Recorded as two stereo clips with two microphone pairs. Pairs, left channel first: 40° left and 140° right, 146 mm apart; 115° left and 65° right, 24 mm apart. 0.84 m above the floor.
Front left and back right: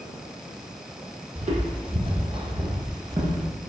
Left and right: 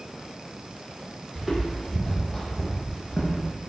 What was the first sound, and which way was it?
Footsteps, 165° right.